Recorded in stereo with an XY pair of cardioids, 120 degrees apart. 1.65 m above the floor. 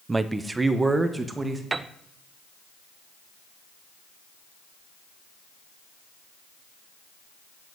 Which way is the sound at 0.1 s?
20° right.